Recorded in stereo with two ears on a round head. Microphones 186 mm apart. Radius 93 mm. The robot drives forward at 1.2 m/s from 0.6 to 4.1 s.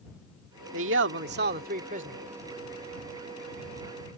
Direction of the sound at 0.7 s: 70° right (ahead or behind).